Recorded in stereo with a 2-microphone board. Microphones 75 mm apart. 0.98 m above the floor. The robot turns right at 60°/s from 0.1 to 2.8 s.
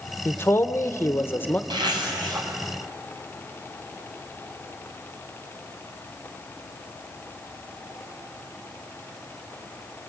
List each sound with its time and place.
0.2 s a man speaking: 55° left, 0.9 m; by 1.6 s 140° left, 0.9 m
1.7 s a zipper: 95° right, 5 m; by 2.5 s 50° right, 5 m